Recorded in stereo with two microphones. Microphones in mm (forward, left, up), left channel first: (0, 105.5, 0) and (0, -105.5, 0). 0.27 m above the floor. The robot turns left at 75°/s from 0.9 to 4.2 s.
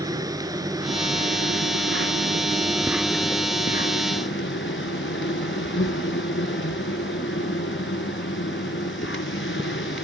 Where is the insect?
20° right, 1.1 m; by 10.1 s 95° left, 1.1 m.